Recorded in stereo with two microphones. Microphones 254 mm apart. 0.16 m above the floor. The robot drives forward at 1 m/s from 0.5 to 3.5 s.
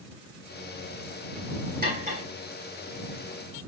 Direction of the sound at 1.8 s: 35° right (ahead or behind).